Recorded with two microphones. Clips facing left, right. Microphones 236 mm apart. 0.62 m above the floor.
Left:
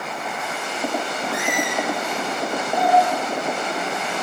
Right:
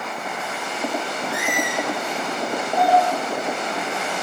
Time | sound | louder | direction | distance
1.3 | a squeak | left 2 dB | 10° right (ahead or behind) | 6 m
2.8 | a doorbell | even | 45° left (ahead or behind) | 6.5 m